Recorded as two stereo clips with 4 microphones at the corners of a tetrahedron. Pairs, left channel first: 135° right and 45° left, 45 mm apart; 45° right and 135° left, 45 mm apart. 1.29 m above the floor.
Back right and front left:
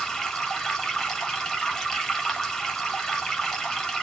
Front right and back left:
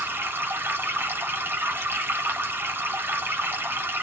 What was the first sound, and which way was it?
Running water, 150° left.